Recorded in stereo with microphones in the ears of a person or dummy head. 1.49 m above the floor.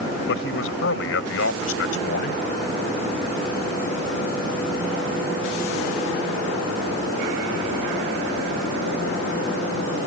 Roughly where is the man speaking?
Left.